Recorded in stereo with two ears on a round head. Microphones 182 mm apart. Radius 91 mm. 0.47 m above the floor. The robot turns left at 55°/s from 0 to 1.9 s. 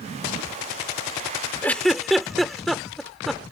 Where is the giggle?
10° left (ahead or behind); by 3.4 s centre (ahead or behind).